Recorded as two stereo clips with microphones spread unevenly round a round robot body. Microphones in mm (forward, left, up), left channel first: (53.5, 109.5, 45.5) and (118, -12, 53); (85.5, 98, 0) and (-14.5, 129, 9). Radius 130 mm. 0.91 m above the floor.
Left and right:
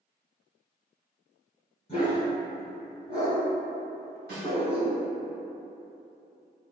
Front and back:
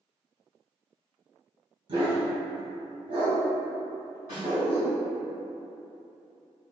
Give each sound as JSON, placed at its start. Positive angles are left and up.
{"t": 1.9, "sound": "a dog barking", "azimuth_deg": -175, "distance_m": 0.6}
{"t": 4.3, "sound": "a snare drum", "azimuth_deg": -70, "distance_m": 1.3}